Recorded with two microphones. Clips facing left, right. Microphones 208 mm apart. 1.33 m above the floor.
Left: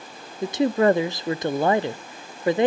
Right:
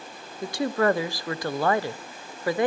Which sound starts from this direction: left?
A woman speaking, at 0.4 s.